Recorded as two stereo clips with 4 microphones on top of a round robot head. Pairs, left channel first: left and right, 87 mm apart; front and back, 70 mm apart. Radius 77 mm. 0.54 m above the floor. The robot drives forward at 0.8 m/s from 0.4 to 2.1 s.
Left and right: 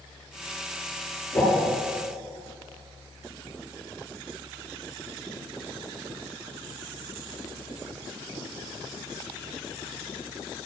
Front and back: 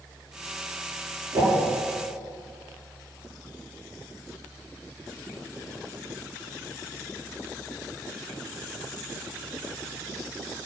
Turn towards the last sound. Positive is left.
turn(degrees=155)